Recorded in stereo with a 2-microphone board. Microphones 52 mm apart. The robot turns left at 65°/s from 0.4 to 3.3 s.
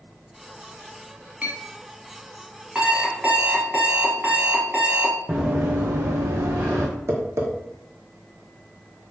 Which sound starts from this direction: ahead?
An alarm clock, at 2.8 s.